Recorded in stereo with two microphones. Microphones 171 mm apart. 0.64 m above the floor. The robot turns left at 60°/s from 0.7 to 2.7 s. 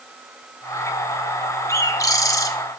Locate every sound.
1.7 s a bird: 15° left (ahead or behind), 0.6 m; by 2.5 s 20° left (ahead or behind), 0.6 m